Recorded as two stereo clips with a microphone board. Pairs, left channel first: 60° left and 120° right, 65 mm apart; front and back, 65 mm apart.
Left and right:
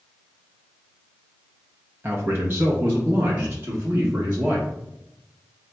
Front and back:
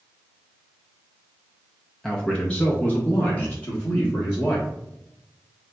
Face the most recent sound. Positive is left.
turn(degrees=-60)